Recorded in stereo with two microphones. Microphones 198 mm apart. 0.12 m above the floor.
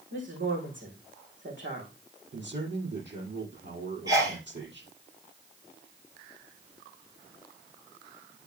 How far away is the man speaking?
About 4.5 m.